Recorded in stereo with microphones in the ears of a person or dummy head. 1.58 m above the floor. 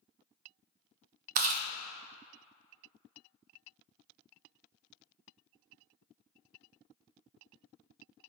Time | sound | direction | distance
1.4 | chewing | 45° right (ahead or behind) | 0.5 m